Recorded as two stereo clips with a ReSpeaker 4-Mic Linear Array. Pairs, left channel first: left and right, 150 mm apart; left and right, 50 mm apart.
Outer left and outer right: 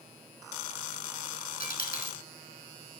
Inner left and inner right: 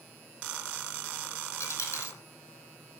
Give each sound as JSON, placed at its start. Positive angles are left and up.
{"t": 1.6, "sound": "a dropped coin", "side_deg": 70, "distance_m": 3.0}